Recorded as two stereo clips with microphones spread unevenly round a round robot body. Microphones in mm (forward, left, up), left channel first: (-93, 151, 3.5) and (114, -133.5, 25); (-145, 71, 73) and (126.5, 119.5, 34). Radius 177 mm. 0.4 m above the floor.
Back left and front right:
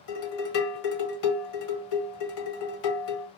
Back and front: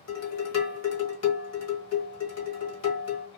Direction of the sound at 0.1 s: 160° left.